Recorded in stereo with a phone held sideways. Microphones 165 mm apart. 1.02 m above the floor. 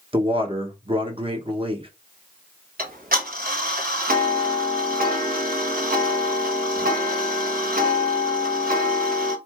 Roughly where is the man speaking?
Right.